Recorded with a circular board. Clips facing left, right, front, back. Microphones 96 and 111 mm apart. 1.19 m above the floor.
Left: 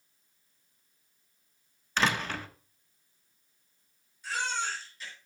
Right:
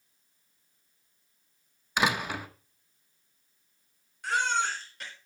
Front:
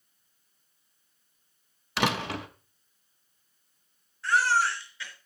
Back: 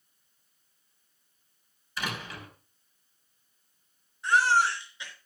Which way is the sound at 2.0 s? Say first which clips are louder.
Right 1 dB, front 9 dB; 15° right.